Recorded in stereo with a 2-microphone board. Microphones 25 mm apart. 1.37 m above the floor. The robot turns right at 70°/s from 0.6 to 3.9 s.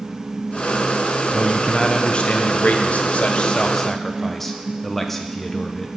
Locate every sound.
1.3 s a man speaking: 10° right, 0.9 m; by 5.9 s 170° left, 0.9 m